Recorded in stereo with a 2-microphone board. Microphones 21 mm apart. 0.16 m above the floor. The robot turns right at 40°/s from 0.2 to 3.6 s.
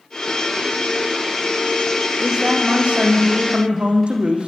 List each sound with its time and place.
2.2 s a man speaking: 135° right, 6.5 m; by 4.5 s 75° right, 6.5 m